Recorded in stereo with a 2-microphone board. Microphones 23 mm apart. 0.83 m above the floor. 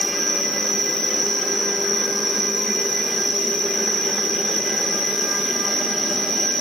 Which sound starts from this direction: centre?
An insect, at 0.0 s.